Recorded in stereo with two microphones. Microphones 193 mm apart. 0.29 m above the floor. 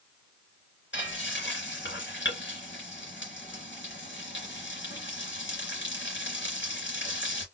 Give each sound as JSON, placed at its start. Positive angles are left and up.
{"t": 0.9, "sound": "frying", "side_deg": 70, "distance_m": 2.5}